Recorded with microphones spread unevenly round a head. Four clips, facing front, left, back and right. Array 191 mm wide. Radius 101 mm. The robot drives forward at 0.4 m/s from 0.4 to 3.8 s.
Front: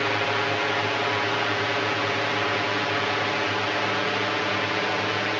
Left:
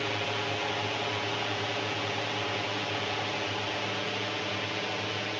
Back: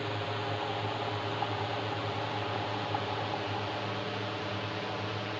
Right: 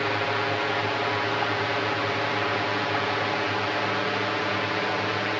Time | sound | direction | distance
0.0 | a drone | 30° right | ?